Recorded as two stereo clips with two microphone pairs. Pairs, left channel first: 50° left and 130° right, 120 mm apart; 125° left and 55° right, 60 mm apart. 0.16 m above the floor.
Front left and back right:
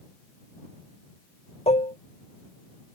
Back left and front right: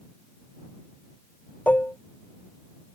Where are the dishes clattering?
65° left.